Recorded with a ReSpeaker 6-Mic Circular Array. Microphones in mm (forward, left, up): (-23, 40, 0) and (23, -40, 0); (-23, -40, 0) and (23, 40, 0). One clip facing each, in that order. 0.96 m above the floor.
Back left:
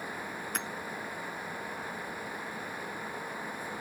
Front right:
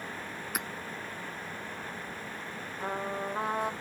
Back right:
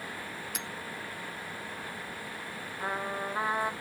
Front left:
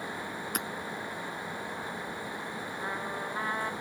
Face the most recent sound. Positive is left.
turn(degrees=-50)